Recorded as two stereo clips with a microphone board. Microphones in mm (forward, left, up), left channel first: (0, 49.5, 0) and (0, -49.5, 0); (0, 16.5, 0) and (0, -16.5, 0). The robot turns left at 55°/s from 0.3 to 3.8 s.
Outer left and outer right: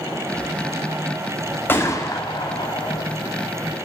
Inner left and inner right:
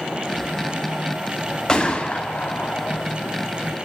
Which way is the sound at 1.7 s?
155° left.